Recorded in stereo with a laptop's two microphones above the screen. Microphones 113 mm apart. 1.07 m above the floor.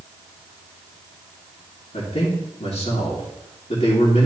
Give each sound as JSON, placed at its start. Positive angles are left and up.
{"t": 1.9, "sound": "a man speaking", "side_deg": 65, "distance_m": 2.5}